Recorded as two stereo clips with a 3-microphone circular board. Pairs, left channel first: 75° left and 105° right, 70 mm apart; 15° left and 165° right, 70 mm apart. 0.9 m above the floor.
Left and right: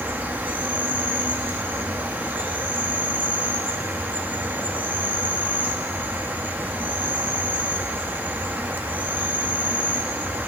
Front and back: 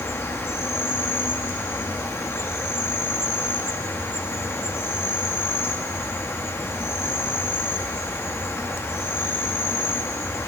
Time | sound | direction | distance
0.0 | an insect | 40° right | 0.9 m